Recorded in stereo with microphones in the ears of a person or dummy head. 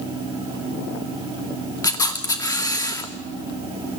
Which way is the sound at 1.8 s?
15° left (ahead or behind).